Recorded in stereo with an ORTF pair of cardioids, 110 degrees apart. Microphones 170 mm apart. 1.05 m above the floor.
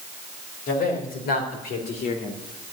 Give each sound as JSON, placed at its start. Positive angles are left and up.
{"t": 0.7, "sound": "a man speaking", "azimuth_deg": 65, "distance_m": 5.0}